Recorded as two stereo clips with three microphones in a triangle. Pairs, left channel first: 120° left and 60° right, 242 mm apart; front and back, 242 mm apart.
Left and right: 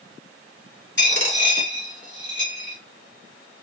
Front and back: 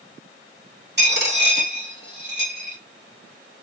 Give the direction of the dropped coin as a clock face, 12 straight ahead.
7 o'clock.